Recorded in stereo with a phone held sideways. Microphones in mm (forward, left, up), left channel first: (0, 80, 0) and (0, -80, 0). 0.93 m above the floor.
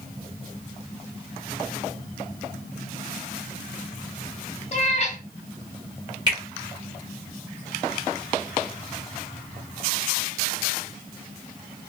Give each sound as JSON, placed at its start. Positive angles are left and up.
{"t": 4.7, "sound": "a cat meowing", "side_deg": 45, "distance_m": 0.9}
{"t": 6.3, "sound": "a finger snap", "side_deg": -30, "distance_m": 1.8}